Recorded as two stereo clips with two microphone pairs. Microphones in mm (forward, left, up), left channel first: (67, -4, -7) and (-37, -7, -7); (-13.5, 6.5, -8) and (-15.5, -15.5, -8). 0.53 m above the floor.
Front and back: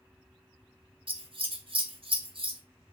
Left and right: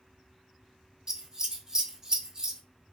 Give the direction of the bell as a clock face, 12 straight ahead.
I don't hear a bell.